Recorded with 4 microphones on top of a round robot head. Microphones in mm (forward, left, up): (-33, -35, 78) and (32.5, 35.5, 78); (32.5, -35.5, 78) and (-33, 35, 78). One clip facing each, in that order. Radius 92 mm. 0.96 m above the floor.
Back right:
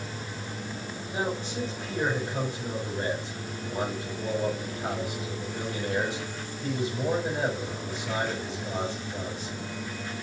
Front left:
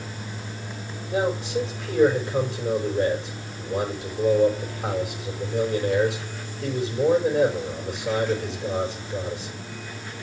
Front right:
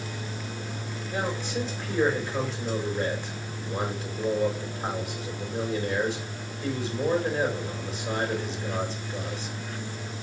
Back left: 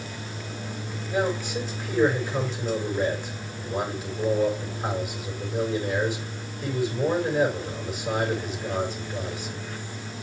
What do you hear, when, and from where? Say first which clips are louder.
1.1 s a man speaking: front left 7 dB, back left 4 dB; 45° left, 4.5 m